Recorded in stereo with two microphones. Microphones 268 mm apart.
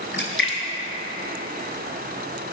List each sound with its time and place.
0.1 s a splash: 45° left (ahead or behind), 0.8 m